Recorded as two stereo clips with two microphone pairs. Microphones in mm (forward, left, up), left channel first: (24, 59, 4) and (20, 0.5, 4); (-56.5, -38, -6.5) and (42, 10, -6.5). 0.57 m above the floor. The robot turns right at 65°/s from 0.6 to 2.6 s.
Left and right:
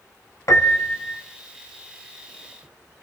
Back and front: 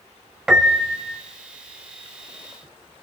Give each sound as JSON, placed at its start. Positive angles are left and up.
{"t": 0.5, "sound": "a piano", "azimuth_deg": 110, "distance_m": 1.5}